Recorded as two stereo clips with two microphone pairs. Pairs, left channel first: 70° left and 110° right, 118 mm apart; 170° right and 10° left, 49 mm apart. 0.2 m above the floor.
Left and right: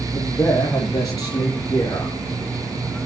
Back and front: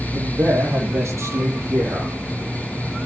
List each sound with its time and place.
0.1 s a man speaking: 10° left, 5.5 m; by 2.1 s 15° left, 7.5 m